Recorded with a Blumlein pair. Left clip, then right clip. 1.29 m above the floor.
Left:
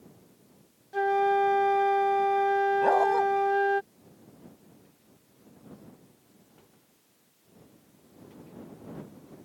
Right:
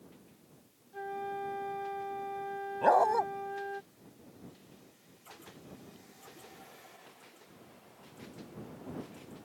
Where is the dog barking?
10° right.